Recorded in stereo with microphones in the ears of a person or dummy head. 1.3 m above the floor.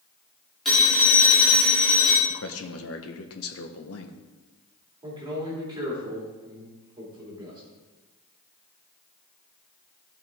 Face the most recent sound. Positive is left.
turn(degrees=-20)  # may be behind; listen again after turning